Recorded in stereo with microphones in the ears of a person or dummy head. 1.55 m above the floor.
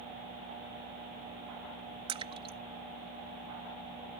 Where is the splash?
30° right (ahead or behind).